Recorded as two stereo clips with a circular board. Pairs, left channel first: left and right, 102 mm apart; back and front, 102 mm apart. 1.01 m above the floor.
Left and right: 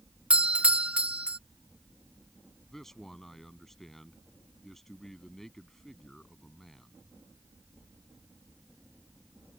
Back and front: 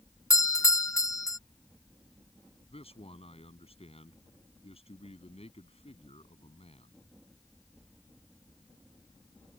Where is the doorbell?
160° right.